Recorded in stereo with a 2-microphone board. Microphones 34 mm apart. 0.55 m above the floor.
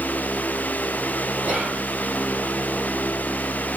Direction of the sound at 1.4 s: 45° right (ahead or behind).